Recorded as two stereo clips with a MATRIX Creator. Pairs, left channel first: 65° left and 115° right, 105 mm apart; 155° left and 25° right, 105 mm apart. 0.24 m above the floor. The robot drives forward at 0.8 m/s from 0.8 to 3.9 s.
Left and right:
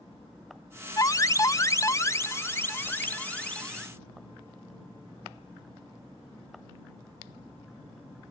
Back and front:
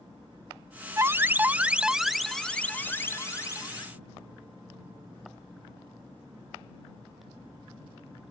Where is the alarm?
30° left; by 3.9 s 145° left.